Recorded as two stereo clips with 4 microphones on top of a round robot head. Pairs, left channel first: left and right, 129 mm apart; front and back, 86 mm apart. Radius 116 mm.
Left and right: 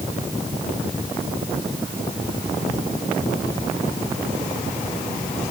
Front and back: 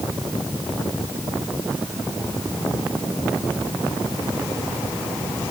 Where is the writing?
I don't hear writing.